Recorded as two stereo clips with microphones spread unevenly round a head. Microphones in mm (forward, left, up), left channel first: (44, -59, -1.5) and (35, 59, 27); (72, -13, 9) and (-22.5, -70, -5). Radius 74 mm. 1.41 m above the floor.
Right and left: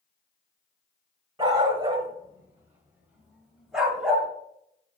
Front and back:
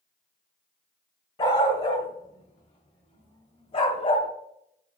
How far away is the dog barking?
About 1.7 m.